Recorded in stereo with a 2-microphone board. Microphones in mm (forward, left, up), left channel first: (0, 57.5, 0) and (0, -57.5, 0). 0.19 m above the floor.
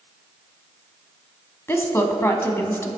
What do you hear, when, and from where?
1.7 s a woman speaking: 20° left (ahead or behind), 1.2 m